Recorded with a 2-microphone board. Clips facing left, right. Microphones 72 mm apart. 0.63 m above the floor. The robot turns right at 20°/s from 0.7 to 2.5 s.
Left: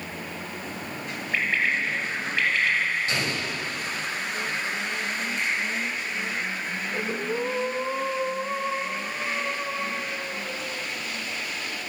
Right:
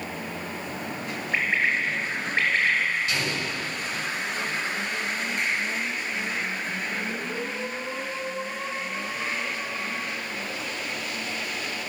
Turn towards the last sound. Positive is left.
turn(degrees=45)  # may be behind; listen again after turning